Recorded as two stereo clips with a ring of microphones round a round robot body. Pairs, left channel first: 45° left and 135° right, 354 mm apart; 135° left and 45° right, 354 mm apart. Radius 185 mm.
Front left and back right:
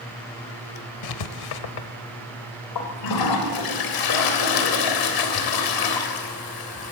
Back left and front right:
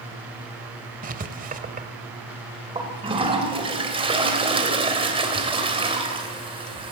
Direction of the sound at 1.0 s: 25° left.